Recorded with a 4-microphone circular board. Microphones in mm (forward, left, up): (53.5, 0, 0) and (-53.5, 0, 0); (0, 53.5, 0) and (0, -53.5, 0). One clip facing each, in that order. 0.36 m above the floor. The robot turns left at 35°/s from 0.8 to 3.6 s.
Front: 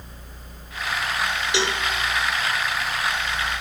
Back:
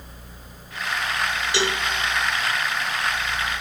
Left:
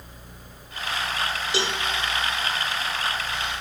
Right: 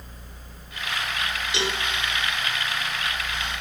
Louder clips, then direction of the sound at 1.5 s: Even, left 1 dB; 60° left.